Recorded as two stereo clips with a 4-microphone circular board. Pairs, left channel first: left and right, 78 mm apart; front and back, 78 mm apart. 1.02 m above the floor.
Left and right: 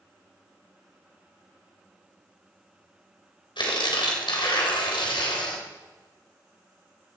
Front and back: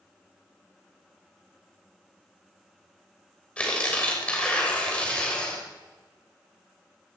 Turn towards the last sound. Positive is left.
turn(degrees=75)